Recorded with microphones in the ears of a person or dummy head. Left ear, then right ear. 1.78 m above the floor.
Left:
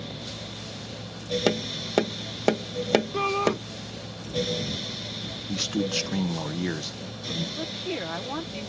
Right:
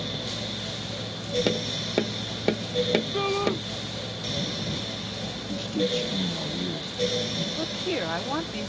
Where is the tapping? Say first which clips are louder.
Even; 45° left (ahead or behind).